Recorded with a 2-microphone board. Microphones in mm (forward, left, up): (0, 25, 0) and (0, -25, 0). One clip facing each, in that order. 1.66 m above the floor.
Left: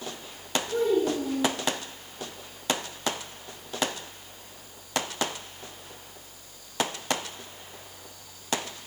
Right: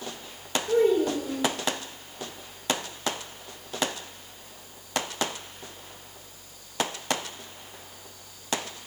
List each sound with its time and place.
0.7 s a child speaking: 70° right (ahead or behind), 3 m